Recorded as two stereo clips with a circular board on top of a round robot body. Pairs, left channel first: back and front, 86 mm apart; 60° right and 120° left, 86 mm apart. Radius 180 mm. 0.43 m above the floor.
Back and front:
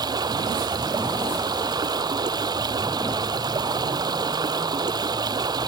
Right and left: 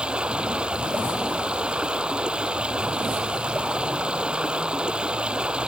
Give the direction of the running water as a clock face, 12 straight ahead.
11 o'clock.